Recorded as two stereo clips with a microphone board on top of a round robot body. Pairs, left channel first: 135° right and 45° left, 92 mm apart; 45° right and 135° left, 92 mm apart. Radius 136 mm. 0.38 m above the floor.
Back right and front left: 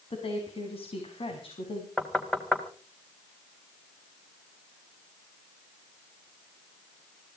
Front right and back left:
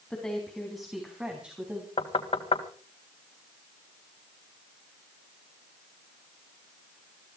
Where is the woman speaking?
130° right, 4 m; by 1.9 s 150° right, 4 m.